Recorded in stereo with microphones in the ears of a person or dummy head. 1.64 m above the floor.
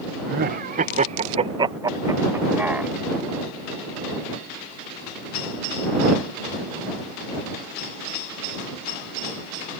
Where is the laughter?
55° right (ahead or behind); by 2.9 s 5° right (ahead or behind).